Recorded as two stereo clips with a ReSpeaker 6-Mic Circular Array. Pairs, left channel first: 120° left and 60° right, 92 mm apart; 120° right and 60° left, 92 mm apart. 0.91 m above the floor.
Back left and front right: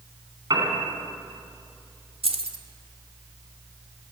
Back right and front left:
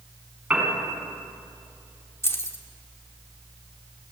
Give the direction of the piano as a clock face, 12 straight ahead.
1 o'clock.